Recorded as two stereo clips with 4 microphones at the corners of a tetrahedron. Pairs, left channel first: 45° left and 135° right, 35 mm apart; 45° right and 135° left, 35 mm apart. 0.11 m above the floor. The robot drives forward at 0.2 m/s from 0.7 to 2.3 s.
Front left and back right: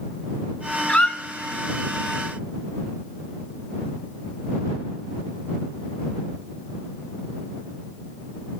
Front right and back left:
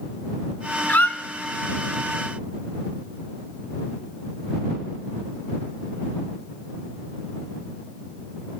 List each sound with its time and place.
0.9 s a squeak: 15° right, 0.5 m